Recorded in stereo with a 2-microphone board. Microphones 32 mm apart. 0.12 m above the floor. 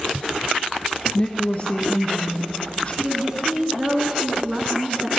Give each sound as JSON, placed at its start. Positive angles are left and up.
{"t": 1.1, "sound": "a woman speaking", "side_deg": 40, "distance_m": 1.4}
{"t": 3.0, "sound": "a woman speaking", "side_deg": -25, "distance_m": 1.1}